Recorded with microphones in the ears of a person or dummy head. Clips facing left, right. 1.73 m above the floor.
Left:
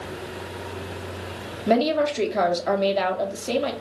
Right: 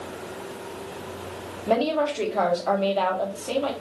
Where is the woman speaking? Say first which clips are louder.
Left 2 dB; 25° left (ahead or behind), 0.8 m.